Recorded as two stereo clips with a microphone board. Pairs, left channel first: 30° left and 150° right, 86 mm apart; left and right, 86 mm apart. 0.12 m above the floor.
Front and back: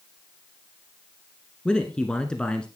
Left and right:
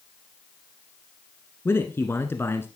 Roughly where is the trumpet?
I don't hear a trumpet.